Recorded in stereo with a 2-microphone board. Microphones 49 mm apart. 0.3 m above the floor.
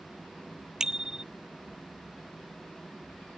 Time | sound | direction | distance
0.8 | a bicycle bell | 15° right (ahead or behind) | ?